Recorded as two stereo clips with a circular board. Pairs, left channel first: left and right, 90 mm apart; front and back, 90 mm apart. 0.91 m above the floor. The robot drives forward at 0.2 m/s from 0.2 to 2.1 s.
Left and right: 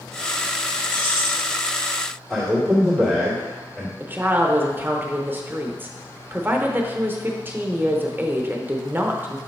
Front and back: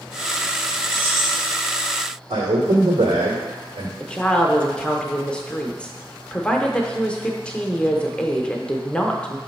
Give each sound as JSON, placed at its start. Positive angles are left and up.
{"t": 0.9, "sound": "keys jangling", "azimuth_deg": 110, "distance_m": 2.0}
{"t": 2.3, "sound": "a man speaking", "azimuth_deg": 180, "distance_m": 1.8}
{"t": 4.0, "sound": "a woman speaking", "azimuth_deg": -65, "distance_m": 0.6}